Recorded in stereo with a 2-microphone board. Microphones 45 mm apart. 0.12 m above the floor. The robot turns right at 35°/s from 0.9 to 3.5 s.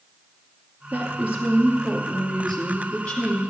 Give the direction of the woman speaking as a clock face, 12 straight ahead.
2 o'clock.